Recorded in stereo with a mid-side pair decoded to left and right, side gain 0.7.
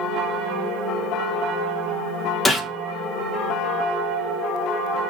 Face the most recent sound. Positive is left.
turn(degrees=15)